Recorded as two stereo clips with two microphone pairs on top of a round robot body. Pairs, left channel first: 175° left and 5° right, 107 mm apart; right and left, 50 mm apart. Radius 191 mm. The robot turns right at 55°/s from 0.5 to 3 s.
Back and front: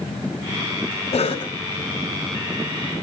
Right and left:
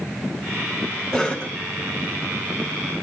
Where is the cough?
165° right, 2.0 m; by 1.5 s 145° right, 2.0 m.